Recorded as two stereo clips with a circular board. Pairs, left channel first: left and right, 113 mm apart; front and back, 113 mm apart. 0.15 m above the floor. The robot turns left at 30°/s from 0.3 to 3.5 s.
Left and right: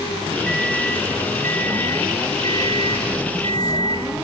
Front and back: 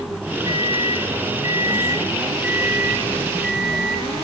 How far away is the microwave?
About 1.2 m.